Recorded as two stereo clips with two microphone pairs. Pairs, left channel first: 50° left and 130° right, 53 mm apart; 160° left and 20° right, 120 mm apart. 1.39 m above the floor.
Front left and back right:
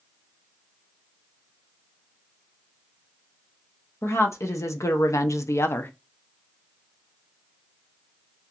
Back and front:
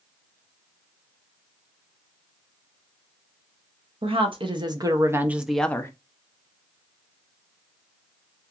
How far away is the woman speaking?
About 1.1 m.